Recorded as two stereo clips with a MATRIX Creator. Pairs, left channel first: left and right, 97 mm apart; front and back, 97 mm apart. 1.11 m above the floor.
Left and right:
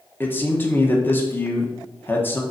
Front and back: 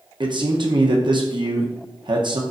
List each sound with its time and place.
0.2 s a man speaking: 155° left, 1.0 m